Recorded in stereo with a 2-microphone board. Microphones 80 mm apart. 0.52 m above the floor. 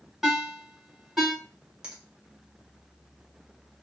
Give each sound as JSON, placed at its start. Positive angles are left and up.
{"t": 0.2, "sound": "a ringtone", "side_deg": -5, "distance_m": 1.3}
{"t": 1.8, "sound": "a finger snap", "side_deg": -10, "distance_m": 1.2}